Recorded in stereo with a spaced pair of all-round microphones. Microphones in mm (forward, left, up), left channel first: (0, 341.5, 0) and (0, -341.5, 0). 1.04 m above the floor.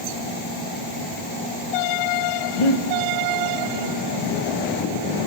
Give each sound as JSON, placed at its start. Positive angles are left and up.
{"t": 2.6, "sound": "breathing", "side_deg": 45, "distance_m": 0.8}